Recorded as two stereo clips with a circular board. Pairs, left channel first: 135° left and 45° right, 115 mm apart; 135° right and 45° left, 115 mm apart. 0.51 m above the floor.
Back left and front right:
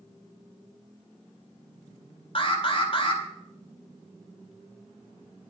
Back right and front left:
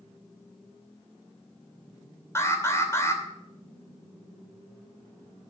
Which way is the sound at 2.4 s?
165° left.